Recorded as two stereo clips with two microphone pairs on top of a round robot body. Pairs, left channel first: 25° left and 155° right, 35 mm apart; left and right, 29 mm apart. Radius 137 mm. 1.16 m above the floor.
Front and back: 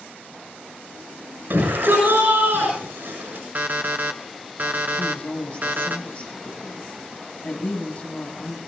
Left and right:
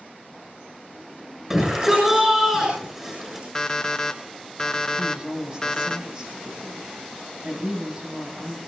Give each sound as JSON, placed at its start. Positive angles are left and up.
{"t": 1.5, "sound": "a shout", "azimuth_deg": -165, "distance_m": 7.5}
{"t": 3.5, "sound": "an alarm clock", "azimuth_deg": 160, "distance_m": 0.5}
{"t": 5.0, "sound": "a woman speaking", "azimuth_deg": -30, "distance_m": 9.0}